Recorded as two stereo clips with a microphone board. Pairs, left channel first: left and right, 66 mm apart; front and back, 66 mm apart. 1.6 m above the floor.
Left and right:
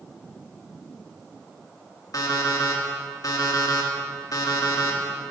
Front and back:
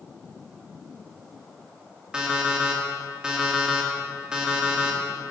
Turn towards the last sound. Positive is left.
turn(degrees=105)